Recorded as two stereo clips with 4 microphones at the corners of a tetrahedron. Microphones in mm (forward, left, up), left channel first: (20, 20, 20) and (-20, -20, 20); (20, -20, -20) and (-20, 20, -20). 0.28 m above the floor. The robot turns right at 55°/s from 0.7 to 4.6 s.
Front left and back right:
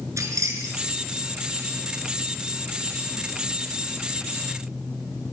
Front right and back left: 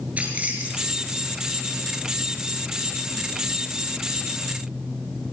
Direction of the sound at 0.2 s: 160° right.